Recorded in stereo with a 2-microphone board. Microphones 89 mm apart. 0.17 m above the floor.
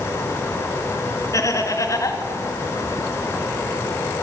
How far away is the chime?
No chime in this recording.